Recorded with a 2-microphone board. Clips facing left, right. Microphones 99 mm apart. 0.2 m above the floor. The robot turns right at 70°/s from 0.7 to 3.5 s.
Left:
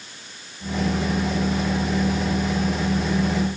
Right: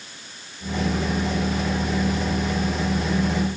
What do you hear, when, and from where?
Only background noise.